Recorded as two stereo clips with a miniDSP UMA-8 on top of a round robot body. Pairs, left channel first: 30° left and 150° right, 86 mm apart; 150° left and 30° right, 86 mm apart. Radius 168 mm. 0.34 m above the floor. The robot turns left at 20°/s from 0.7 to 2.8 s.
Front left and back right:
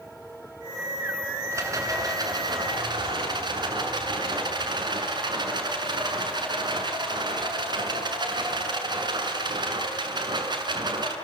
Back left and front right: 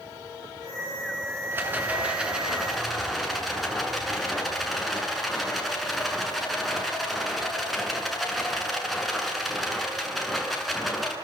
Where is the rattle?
95° right, 7.5 m; by 11.2 s 120° right, 7.5 m.